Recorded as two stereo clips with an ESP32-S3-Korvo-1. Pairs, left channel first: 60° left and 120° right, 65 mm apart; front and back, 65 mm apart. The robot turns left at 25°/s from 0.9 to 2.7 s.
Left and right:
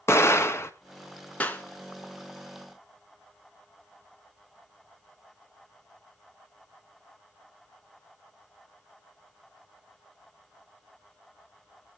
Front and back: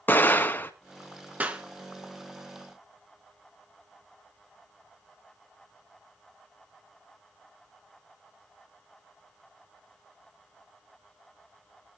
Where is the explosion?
45° left, 1.3 m.